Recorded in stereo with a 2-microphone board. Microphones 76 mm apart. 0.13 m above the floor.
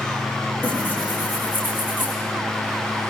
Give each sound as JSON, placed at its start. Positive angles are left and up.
{"t": 0.6, "sound": "tearing paper", "side_deg": 25, "distance_m": 7.5}